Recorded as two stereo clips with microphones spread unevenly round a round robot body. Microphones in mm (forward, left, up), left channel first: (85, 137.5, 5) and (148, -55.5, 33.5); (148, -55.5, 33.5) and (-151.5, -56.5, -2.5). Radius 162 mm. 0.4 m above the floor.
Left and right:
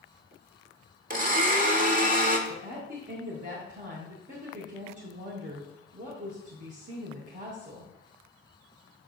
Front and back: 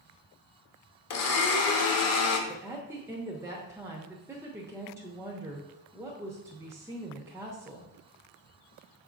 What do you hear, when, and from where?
1.1 s a blender: 30° right, 1.0 m
2.5 s a woman speaking: 110° right, 0.9 m